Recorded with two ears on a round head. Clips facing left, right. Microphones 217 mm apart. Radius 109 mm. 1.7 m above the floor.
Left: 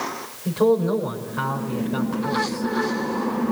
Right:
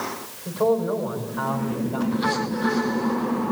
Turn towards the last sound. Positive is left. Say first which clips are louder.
# left 3 dB
turn(degrees=35)  # may be behind; listen again after turning